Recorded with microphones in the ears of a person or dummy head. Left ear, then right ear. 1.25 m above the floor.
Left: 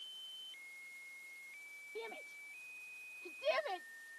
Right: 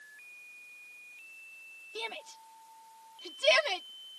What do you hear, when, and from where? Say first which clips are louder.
1.9 s a shout: right 9 dB; 80° right